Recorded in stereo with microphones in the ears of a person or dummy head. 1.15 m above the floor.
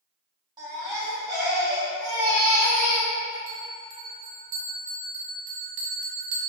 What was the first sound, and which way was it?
A baby crying, 20° right (ahead or behind).